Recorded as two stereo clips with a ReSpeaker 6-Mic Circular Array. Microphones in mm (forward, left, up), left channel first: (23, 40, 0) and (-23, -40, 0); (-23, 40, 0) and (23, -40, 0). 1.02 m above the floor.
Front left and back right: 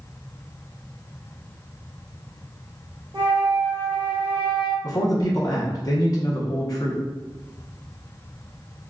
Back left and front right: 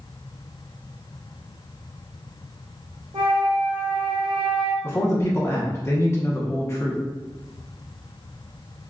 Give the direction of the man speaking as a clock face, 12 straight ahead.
9 o'clock.